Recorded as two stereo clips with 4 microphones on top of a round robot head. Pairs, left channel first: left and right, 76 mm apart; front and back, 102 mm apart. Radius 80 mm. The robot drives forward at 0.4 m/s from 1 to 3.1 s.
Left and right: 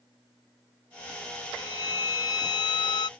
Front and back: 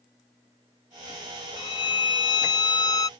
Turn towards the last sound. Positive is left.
turn(degrees=55)